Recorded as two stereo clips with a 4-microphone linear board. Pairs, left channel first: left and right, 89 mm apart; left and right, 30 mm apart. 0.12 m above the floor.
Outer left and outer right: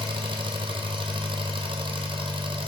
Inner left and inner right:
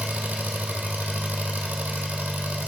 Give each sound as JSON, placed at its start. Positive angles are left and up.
{"t": 0.0, "sound": "an engine running", "side_deg": -70, "distance_m": 1.5}